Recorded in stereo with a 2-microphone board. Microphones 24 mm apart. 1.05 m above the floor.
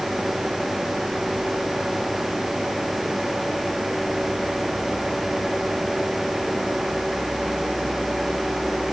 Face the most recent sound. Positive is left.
No sound to turn to.